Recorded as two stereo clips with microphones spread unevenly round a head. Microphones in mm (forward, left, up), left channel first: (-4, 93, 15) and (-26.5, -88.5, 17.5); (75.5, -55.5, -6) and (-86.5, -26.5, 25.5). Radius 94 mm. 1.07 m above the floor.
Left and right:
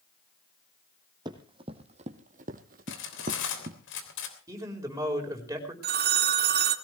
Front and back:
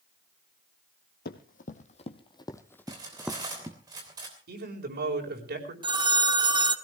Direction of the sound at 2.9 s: 100° left.